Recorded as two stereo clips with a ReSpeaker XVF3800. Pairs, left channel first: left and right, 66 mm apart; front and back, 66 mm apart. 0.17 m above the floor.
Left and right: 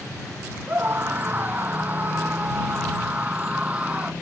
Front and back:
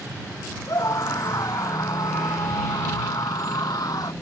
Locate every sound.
0.7 s a scream: 30° right; by 4.1 s 20° right